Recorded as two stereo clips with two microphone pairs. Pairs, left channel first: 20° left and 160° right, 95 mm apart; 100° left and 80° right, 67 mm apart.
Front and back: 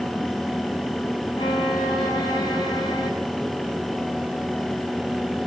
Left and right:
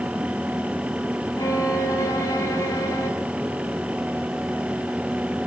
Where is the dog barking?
No dog barking in this recording.